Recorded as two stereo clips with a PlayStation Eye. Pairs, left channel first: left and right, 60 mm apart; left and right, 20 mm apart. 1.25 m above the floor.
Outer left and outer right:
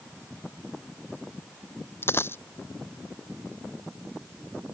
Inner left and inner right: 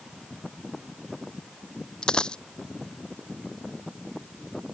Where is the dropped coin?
40° left (ahead or behind).